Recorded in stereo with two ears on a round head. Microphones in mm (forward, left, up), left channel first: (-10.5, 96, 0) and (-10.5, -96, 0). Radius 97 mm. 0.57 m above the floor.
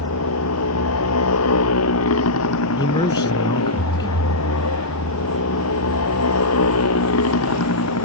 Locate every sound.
0.0 s a motorcycle: 75° left (ahead or behind)
2.8 s a man speaking: 20° left (ahead or behind)